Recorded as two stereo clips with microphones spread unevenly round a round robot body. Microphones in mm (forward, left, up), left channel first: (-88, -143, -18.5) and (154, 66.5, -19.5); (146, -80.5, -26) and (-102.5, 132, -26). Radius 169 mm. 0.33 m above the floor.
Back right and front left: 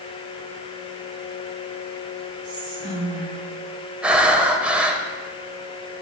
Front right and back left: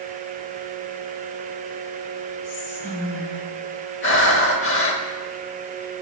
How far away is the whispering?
About 4.5 m.